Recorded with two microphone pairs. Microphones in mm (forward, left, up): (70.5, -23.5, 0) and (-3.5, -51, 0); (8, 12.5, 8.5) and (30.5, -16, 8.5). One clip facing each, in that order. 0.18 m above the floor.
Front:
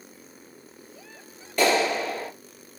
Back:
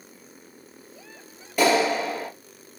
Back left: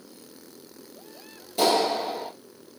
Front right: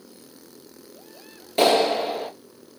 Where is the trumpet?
No trumpet in this recording.